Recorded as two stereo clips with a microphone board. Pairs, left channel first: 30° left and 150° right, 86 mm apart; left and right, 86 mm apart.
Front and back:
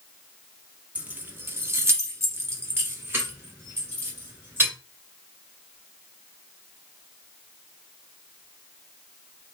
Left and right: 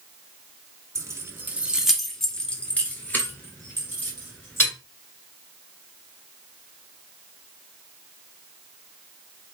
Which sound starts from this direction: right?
Keys jangling, at 0.9 s.